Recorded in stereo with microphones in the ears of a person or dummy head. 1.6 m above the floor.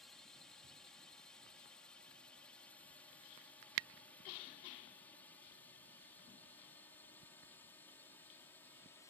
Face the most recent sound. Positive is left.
turn(degrees=15)  # may be behind; listen again after turning